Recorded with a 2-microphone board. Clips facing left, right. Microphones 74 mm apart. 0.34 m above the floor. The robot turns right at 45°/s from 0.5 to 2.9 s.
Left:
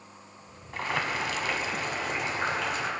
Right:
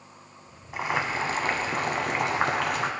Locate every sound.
0.7 s boiling: 165° right, 1.0 m; by 2.9 s 70° right, 1.0 m